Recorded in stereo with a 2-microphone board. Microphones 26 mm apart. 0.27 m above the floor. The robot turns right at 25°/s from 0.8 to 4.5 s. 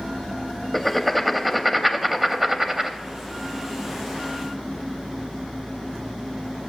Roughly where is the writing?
Centre.